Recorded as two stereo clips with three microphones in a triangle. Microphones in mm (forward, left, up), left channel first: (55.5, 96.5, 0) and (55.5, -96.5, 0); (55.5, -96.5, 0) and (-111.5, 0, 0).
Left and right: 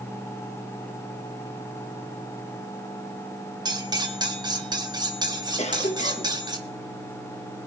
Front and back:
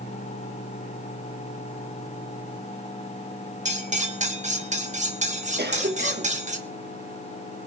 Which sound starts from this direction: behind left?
A cough, at 5.6 s.